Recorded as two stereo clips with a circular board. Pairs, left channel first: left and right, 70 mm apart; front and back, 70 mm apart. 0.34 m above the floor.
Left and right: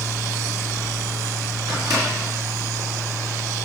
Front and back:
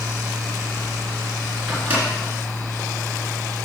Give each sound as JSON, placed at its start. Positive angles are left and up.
{"t": 1.7, "sound": "a microwave", "azimuth_deg": -115, "distance_m": 3.5}